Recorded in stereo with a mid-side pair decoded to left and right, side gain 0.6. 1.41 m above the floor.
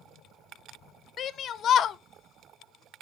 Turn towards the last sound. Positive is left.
turn(degrees=50)